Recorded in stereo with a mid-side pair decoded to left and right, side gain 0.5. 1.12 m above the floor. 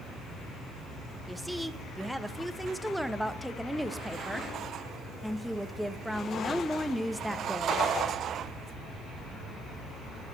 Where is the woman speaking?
Straight ahead, 0.9 m.